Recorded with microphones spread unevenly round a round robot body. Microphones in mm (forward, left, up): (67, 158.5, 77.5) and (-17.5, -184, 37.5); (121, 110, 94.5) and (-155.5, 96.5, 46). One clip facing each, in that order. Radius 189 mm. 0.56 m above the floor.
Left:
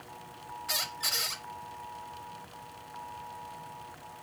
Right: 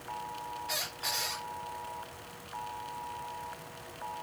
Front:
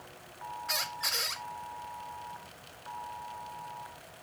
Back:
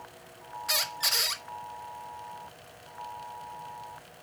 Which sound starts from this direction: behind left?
A squeak, at 0.7 s.